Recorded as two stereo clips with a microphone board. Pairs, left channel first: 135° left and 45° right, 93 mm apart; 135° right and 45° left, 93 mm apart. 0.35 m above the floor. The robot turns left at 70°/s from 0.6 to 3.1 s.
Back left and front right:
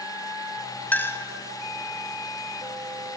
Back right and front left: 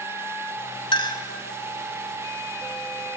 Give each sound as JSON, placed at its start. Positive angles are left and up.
{"t": 0.9, "sound": "a clink", "azimuth_deg": -155, "distance_m": 1.2}